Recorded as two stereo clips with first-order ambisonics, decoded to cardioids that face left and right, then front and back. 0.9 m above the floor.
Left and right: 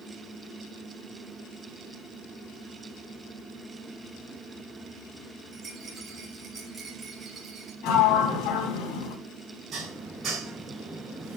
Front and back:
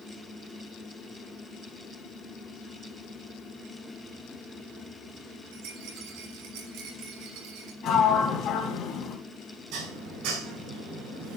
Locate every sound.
5.5 s a rattle: 160° right, 3.5 m
7.8 s a sliding door: 55° left, 3.5 m
9.7 s dishes clattering: 150° right, 5.5 m